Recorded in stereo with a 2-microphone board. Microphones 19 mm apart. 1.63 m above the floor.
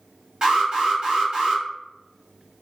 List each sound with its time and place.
0.4 s an alarm: 50° right (ahead or behind), 1.4 m